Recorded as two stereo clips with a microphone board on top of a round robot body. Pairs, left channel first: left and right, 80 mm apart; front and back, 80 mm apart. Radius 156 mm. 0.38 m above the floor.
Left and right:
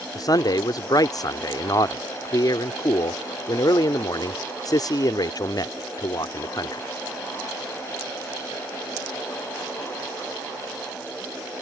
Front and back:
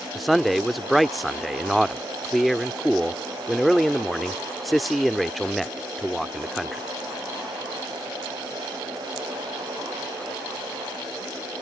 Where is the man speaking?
90° left.